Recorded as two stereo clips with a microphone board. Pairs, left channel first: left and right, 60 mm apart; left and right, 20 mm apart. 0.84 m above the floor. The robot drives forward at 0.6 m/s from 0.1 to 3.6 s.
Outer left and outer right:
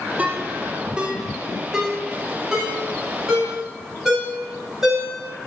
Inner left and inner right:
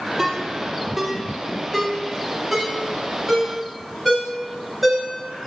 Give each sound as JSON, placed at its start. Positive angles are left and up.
{"t": 0.2, "sound": "a ringtone", "side_deg": -25, "distance_m": 0.9}